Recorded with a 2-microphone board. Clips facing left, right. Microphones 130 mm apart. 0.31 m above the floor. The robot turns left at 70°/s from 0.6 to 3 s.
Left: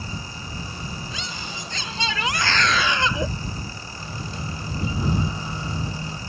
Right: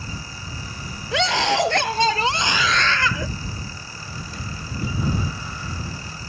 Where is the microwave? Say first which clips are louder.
Left 2 dB; 25° left (ahead or behind).